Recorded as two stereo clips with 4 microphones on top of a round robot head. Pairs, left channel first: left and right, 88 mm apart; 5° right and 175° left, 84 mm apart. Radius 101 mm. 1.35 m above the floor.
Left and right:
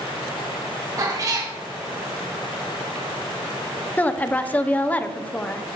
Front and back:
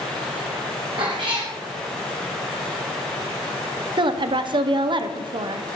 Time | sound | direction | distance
1.0 | a cat meowing | 140° right | 2.0 m
4.0 | a woman speaking | 160° left | 0.9 m